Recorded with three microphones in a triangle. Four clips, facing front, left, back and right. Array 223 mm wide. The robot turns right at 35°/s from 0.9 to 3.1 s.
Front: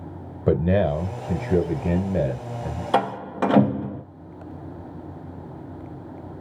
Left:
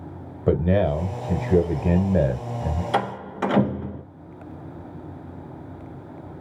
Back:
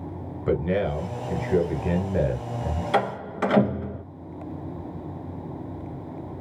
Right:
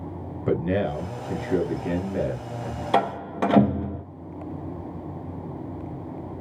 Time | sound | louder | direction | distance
0.5 | a man speaking | left 4 dB, front 4 dB | 30° left | 1.5 m
2.9 | a door slam | right 4 dB, front 3 dB | 45° right | 1.2 m